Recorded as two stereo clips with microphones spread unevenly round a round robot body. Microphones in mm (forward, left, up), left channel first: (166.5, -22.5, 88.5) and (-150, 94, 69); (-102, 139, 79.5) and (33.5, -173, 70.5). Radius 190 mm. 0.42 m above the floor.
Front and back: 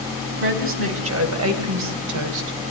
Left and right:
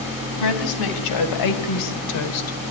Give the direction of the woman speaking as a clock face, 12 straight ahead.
8 o'clock.